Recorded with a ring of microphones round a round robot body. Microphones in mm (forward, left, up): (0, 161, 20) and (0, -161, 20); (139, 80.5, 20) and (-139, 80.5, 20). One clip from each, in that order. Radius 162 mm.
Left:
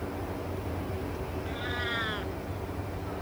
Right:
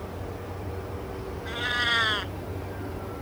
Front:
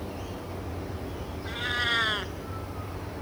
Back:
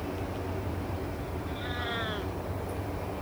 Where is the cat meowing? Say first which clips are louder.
Right 9 dB, front 9 dB; 45° right.